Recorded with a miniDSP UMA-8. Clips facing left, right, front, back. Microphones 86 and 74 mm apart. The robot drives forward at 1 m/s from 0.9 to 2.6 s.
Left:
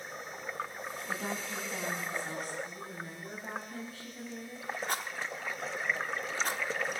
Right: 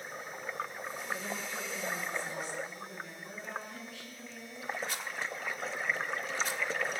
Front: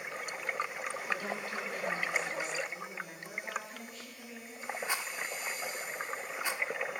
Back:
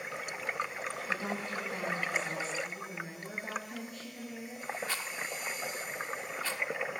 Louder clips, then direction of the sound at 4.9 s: Left 2 dB, front 1 dB; 65° left.